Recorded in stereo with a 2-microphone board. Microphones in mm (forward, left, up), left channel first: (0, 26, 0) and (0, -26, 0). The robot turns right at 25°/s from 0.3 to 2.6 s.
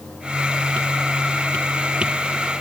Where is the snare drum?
No snare drum in this recording.